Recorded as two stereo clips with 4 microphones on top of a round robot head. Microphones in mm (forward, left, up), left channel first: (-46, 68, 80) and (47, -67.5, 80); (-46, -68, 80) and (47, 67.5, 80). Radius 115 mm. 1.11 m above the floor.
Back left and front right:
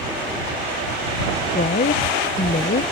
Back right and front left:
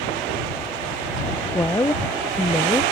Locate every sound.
1.6 s a woman speaking: 160° left